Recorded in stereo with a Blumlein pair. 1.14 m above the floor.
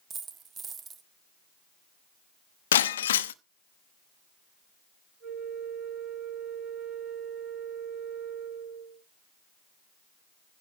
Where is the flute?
30° right, 8 m.